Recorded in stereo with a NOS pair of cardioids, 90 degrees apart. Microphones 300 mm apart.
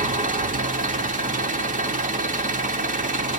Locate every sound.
0.0 s an engine running: 25° right, 3 m